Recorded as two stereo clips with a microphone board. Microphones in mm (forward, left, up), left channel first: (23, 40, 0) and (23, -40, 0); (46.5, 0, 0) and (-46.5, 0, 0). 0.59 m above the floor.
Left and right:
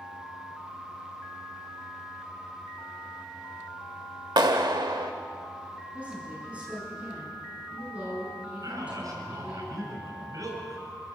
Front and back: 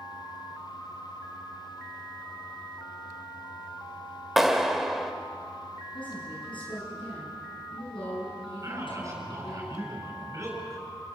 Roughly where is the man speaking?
Behind right.